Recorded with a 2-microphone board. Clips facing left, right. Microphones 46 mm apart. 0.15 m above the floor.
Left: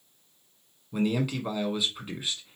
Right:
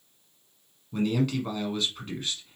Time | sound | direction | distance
0.9 | a man speaking | 10° left (ahead or behind) | 1.3 m